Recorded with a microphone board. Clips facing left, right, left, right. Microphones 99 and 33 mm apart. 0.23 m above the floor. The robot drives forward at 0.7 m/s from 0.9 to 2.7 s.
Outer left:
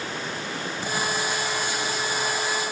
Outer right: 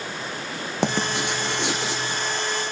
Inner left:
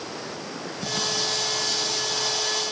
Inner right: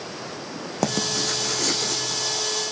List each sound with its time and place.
0.8 s writing: 75° right (ahead or behind), 3.5 m; by 2.2 s 85° right, 3 m